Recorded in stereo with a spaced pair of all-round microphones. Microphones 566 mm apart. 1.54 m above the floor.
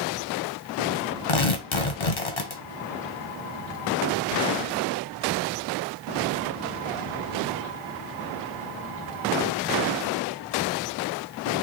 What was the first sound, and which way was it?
Tearing paper, 55° left (ahead or behind).